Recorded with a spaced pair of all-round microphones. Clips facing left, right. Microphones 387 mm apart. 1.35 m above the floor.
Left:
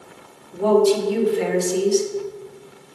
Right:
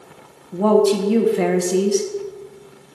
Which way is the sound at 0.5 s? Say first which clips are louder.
Right 1 dB; 75° right (ahead or behind).